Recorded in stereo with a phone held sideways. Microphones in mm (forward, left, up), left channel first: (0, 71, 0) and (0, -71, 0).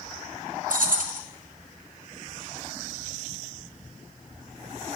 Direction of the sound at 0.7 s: 70° right (ahead or behind).